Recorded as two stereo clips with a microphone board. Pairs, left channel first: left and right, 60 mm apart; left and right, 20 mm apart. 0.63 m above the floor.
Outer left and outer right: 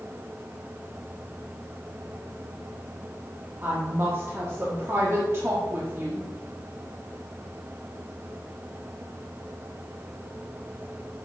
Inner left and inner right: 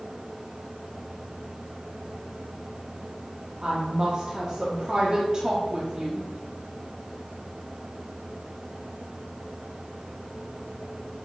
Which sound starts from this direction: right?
A woman speaking, at 3.6 s.